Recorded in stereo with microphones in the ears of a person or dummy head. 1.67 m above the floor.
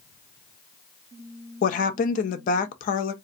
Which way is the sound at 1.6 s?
45° left (ahead or behind).